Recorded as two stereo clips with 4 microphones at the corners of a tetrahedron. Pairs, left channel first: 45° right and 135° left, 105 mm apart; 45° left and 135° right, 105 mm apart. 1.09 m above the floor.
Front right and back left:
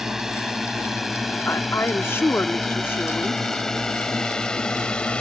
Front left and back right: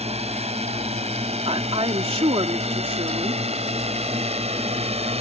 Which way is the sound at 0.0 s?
140° right.